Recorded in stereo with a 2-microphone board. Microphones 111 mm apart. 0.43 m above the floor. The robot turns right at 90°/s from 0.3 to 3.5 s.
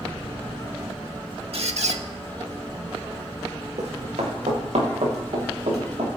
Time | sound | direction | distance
1.5 | a squeak | 120° right | 0.8 m
3.8 | running footsteps | 85° right | 3.5 m